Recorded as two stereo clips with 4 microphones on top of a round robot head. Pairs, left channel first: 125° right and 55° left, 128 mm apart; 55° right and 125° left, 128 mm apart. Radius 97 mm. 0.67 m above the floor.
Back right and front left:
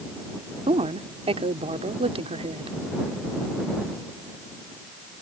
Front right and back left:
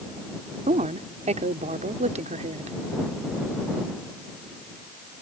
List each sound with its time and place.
0.7 s a woman speaking: 95° left